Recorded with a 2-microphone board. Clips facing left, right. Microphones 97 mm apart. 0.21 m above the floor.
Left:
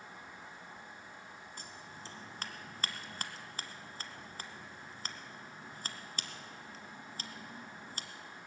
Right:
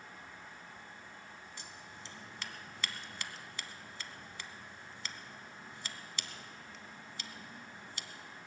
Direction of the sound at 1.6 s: 45° left (ahead or behind).